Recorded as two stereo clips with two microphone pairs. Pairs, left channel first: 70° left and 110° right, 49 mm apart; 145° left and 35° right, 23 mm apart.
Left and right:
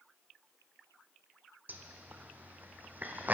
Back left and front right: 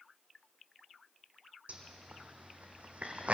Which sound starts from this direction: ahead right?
A zipper, at 1.7 s.